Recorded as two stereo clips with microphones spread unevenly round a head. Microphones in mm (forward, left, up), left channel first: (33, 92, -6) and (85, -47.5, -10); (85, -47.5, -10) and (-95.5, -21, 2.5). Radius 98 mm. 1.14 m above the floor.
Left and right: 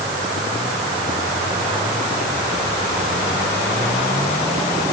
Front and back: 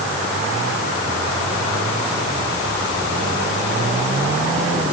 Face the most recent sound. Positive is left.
No sound to turn to.